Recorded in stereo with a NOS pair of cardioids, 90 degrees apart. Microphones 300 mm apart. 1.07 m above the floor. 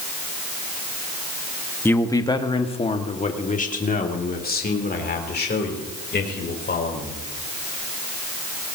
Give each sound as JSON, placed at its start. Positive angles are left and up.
{"t": 1.9, "sound": "a man speaking", "azimuth_deg": 5, "distance_m": 1.2}